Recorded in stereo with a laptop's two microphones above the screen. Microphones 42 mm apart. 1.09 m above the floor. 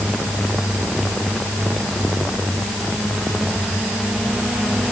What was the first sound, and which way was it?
Only background noise.